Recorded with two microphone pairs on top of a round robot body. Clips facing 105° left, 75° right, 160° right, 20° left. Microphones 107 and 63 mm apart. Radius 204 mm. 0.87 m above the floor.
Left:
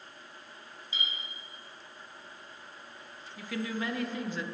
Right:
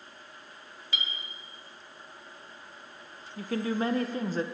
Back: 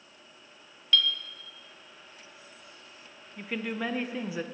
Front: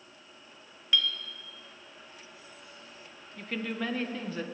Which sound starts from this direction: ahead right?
A clink, at 0.9 s.